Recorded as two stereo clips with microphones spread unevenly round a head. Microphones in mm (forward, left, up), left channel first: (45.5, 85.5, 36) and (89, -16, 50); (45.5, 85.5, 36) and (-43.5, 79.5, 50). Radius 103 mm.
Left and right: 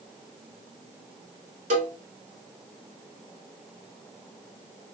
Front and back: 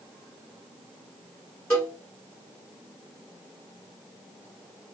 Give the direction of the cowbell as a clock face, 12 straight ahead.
2 o'clock.